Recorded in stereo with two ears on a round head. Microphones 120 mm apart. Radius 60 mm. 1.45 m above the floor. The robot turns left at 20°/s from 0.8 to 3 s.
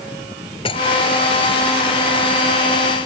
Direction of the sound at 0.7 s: 40° left (ahead or behind).